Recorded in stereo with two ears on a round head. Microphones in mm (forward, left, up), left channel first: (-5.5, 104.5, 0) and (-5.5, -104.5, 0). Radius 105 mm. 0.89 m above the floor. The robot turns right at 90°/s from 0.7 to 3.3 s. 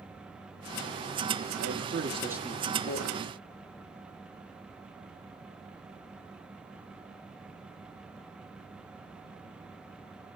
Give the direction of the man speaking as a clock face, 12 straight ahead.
3 o'clock.